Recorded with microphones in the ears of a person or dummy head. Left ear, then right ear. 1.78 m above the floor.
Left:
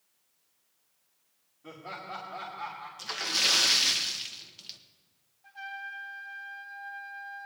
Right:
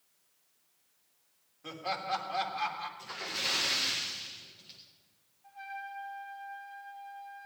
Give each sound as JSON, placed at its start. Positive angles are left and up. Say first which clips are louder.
{"t": 1.6, "sound": "laughter", "louder": "right 6 dB", "side_deg": -40, "distance_m": 3.5}
{"t": 3.0, "sound": "a splash", "louder": "left 9 dB", "side_deg": 55, "distance_m": 1.5}
{"t": 5.4, "sound": "a trumpet", "louder": "left 3 dB", "side_deg": 60, "distance_m": 2.5}